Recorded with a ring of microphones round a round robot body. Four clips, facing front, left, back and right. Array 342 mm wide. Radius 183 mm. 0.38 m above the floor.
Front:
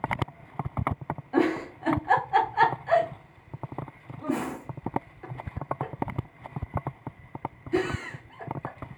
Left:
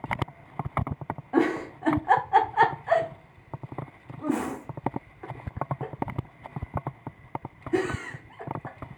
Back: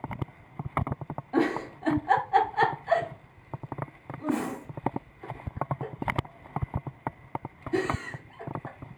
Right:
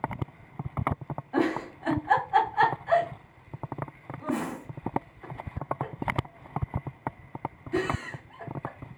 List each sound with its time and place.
1.3 s a giggle: 75° left, 1.0 m